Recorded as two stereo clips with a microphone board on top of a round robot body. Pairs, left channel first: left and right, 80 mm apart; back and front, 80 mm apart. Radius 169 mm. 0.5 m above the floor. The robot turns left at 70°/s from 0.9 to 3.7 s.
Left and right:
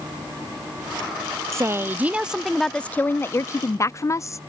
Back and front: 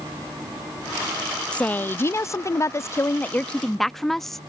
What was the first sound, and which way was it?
A woman speaking, 110° right.